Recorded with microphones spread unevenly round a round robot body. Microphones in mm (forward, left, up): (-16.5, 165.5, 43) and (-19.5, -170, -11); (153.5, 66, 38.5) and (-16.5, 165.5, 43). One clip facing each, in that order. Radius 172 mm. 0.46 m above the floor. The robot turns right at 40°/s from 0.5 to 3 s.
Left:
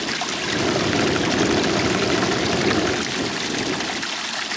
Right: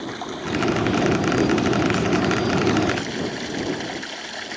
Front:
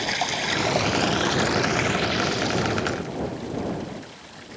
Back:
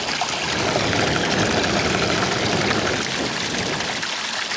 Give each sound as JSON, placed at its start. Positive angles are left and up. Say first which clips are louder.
{"t": 0.0, "sound": "running water", "louder": "left 1 dB, back 1 dB", "azimuth_deg": 50}